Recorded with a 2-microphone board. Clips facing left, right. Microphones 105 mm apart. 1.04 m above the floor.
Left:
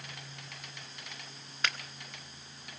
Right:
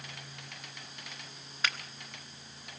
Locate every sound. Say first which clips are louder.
1.6 s a finger snap: even; centre (ahead or behind), 1.2 m